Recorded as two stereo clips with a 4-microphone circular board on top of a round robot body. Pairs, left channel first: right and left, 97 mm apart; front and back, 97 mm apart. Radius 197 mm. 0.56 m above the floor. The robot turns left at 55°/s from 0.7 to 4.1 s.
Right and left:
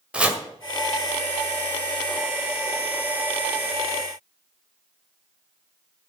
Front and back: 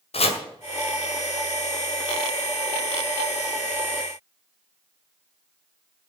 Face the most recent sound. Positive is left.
turn(degrees=-175)